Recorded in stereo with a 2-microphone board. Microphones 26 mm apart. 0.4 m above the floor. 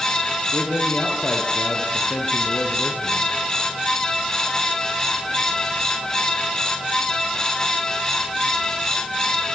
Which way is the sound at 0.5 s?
60° left (ahead or behind).